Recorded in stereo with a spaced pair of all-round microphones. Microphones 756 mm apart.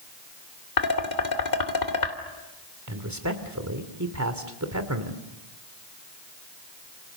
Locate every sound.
0.8 s dishes clattering: 70° left (ahead or behind), 2.5 m
2.9 s a man speaking: 20° right (ahead or behind), 2.5 m